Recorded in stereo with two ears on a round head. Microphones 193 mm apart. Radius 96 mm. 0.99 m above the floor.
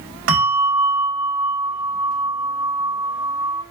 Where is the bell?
65° right (ahead or behind), 1.9 m.